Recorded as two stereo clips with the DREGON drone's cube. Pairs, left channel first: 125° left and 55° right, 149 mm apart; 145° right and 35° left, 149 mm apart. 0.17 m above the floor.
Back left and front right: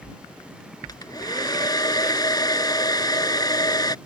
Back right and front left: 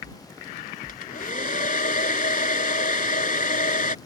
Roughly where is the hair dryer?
Behind.